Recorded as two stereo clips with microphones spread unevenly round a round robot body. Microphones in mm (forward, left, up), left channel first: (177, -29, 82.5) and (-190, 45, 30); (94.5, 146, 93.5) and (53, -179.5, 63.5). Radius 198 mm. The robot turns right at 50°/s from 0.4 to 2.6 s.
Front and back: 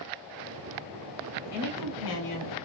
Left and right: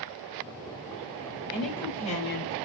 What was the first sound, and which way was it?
A woman speaking, 15° right.